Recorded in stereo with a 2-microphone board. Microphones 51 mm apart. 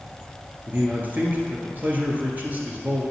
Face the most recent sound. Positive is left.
turn(degrees=-35)  # may be behind; listen again after turning